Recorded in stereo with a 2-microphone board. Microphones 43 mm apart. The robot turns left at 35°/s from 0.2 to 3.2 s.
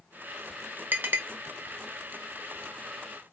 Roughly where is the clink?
Right.